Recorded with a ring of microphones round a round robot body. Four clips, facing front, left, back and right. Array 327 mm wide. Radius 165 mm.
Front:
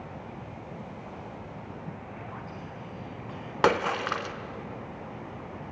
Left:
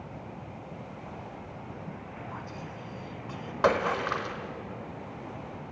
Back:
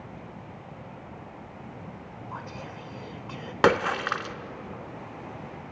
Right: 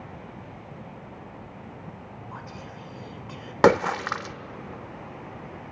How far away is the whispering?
About 2 m.